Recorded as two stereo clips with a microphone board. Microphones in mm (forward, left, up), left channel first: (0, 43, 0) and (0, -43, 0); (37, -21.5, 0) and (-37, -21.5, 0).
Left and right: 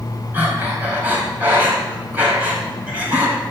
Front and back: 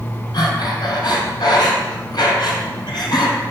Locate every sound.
0.3 s breathing: 20° right, 3.5 m